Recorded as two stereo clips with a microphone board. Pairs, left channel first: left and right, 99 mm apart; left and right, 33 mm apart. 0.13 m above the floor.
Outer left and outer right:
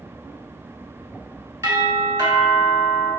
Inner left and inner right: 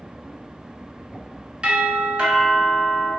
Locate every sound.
1.6 s a doorbell: 30° right (ahead or behind), 1.7 m